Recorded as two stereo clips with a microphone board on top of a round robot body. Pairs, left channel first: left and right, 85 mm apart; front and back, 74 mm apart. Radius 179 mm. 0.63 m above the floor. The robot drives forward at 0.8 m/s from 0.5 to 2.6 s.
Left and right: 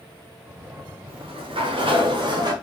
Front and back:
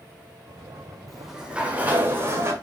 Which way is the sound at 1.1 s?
90° right.